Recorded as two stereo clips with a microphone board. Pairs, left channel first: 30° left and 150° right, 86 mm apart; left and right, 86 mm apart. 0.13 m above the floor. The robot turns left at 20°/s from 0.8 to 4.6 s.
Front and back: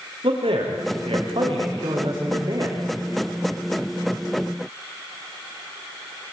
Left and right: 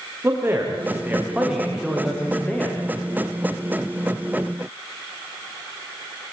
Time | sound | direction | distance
0.2 | a man speaking | 155° right | 9 m